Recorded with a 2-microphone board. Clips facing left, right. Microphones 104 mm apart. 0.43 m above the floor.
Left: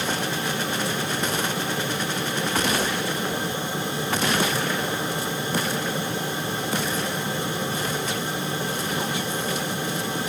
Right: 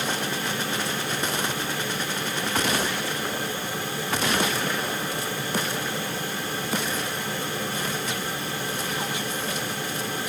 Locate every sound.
Only background noise.